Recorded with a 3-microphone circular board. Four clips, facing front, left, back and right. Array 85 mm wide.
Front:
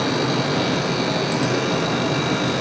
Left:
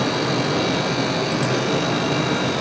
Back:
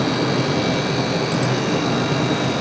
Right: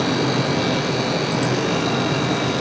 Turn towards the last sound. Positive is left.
No sound to turn to.